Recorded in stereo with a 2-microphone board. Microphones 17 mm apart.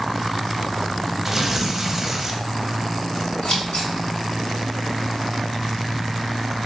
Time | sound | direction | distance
1.2 | tearing paper | 20° right (ahead or behind) | 0.7 m
3.4 | scissors | 70° left (ahead or behind) | 2.5 m